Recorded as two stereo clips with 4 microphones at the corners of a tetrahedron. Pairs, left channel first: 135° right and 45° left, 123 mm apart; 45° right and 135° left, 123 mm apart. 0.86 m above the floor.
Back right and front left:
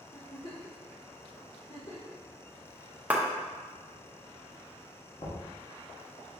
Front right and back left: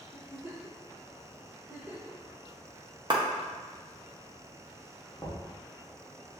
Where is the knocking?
105° right, 1.2 m.